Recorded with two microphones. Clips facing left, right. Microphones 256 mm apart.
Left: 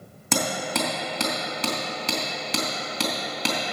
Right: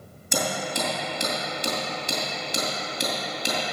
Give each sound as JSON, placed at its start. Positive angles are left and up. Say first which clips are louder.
{"t": 0.3, "sound": "hammering", "louder": "left 2 dB", "side_deg": 85, "distance_m": 2.5}